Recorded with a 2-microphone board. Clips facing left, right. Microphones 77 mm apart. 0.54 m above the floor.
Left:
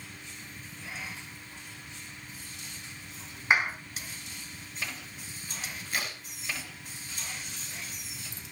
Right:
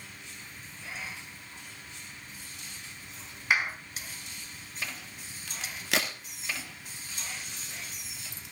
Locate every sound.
3.5 s a clap: 25° left (ahead or behind), 4 m
5.5 s a crack: 80° right, 2.5 m